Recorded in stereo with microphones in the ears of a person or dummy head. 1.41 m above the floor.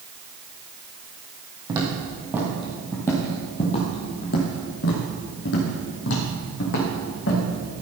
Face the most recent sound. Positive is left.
turn(degrees=60)  # may be behind; listen again after turning